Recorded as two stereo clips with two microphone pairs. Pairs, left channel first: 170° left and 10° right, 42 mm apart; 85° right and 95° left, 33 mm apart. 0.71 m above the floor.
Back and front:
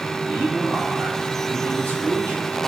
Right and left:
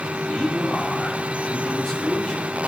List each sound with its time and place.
0.3 s a man speaking: 25° right, 1.8 m; by 2.4 s 5° right, 2.5 m